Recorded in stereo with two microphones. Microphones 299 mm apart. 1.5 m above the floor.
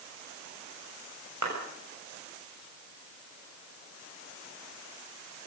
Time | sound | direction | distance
1.4 | a clap | 70° right (ahead or behind) | 6.5 m